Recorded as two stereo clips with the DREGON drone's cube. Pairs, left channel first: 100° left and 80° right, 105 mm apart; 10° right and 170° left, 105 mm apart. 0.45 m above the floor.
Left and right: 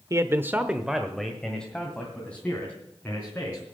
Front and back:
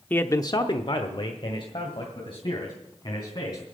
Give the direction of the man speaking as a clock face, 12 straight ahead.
3 o'clock.